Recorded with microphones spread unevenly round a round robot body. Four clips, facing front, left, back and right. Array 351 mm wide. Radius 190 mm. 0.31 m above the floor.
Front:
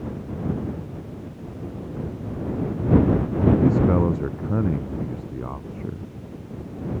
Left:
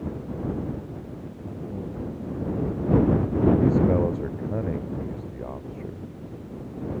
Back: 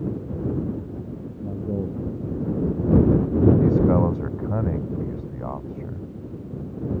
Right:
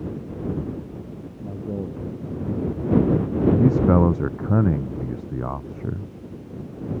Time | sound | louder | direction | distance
1.4 | a man speaking | right 5 dB, back 9 dB | 150° right | ?
3.6 | a man speaking | right 3 dB, even | 95° right | ?